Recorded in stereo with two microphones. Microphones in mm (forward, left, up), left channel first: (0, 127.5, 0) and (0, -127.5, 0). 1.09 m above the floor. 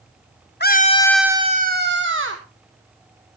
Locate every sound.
0.6 s a scream: 40° left (ahead or behind), 1.0 m; by 2.4 s 55° right (ahead or behind), 1.7 m